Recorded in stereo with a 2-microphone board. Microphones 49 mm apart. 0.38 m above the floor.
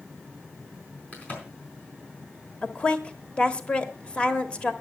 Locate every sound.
1.1 s a crack: 30° left (ahead or behind), 4.5 m
2.6 s a woman speaking: 25° left (ahead or behind), 1.1 m